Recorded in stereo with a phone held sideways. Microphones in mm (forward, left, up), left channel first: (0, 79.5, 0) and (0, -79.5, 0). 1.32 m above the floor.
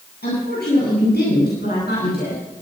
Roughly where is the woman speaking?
Left.